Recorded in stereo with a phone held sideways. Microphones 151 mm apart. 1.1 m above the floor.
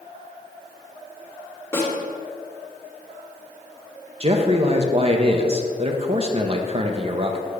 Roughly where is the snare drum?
Centre.